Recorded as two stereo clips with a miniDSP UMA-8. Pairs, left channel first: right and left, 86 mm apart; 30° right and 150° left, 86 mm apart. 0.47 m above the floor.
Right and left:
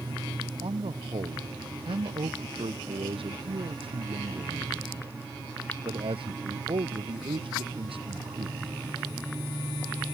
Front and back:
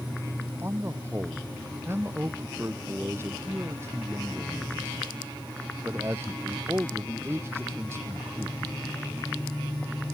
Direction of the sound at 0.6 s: 85° left.